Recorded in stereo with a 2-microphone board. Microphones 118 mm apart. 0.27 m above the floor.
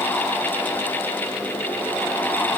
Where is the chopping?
I don't hear chopping.